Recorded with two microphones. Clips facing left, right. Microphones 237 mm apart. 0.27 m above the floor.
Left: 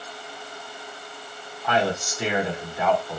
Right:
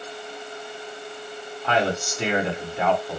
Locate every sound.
1.6 s a man speaking: 25° right (ahead or behind), 1.7 m